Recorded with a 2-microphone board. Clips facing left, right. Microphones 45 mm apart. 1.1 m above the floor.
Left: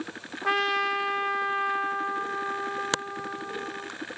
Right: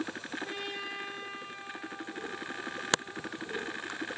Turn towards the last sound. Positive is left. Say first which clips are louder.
# left 19 dB
turn(degrees=80)